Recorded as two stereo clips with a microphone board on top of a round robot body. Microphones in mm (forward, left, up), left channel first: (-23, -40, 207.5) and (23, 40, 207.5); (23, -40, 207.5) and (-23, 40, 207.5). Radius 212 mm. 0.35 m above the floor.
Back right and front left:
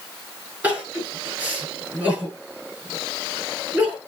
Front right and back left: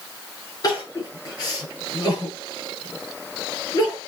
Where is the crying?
10° right, 7.5 m.